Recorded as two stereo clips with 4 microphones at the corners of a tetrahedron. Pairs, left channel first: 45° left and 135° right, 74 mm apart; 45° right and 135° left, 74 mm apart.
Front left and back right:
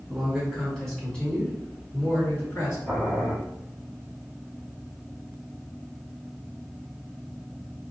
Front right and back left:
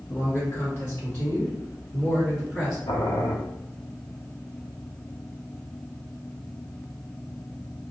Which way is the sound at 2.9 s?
55° right.